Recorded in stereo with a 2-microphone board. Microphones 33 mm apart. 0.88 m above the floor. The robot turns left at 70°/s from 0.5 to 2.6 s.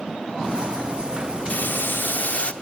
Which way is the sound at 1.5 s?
115° left.